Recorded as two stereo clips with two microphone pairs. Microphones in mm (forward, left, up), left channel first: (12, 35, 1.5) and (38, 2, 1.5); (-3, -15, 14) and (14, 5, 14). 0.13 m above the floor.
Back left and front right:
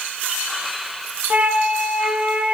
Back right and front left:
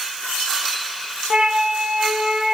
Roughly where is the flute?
Ahead.